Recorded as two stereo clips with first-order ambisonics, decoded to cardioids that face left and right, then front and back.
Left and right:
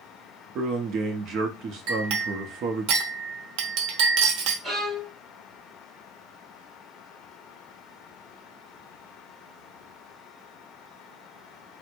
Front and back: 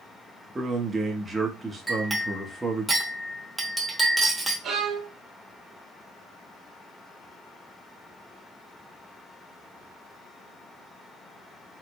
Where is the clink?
95° right, 0.8 m.